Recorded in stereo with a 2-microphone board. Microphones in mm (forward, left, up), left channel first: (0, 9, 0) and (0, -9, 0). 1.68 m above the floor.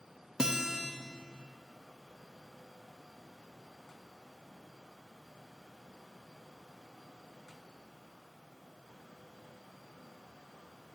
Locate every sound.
0.4 s a guitar: 45° right (ahead or behind), 0.9 m